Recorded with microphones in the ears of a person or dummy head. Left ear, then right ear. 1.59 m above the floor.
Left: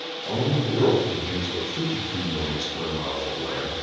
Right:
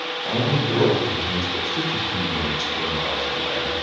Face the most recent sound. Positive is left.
turn(degrees=-80)